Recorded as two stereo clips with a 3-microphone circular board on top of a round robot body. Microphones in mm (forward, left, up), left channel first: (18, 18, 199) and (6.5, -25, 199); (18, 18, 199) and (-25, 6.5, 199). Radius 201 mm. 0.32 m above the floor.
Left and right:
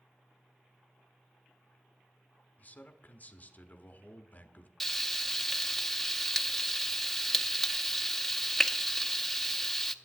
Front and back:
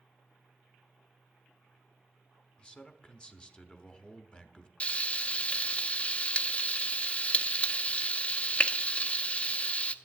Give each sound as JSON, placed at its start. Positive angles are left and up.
{"t": 2.6, "sound": "a man speaking", "azimuth_deg": 70, "distance_m": 1.2}
{"t": 4.8, "sound": "frying", "azimuth_deg": -5, "distance_m": 0.8}